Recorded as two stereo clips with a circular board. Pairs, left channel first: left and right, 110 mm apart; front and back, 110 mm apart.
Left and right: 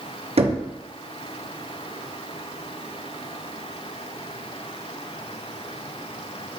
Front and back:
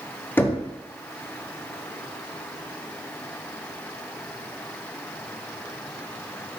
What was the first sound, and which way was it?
Knocking, 70° right.